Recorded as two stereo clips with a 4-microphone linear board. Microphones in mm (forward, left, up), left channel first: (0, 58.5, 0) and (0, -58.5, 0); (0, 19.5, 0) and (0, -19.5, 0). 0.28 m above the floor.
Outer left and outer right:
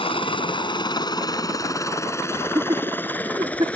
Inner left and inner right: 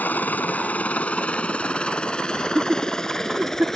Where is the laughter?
35° right (ahead or behind).